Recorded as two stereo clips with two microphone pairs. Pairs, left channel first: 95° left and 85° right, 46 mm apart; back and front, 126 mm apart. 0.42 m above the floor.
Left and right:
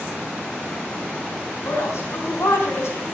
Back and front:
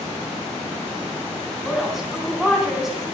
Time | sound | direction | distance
1.6 | a woman speaking | 85° left | 4 m